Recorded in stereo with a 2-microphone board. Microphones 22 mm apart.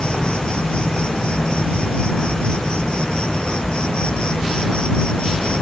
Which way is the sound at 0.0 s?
50° left (ahead or behind).